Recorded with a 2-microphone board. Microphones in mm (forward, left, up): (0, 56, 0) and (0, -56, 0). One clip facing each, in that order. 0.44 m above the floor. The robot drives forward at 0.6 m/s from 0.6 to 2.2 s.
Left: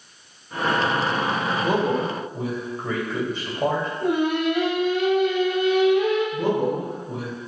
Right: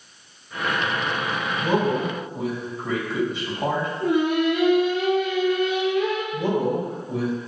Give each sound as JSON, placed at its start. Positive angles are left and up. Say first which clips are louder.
{"t": 1.6, "sound": "a man speaking", "louder": "right 1 dB", "side_deg": 50, "distance_m": 1.7}
{"t": 4.0, "sound": "singing", "louder": "right 2 dB", "side_deg": 70, "distance_m": 1.7}
{"t": 6.3, "sound": "a man speaking", "louder": "even", "side_deg": 50, "distance_m": 1.9}